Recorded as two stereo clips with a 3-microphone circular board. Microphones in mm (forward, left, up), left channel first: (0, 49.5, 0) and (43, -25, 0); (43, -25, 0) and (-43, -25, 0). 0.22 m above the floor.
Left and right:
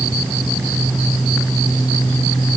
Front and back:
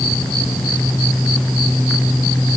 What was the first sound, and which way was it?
Only background noise.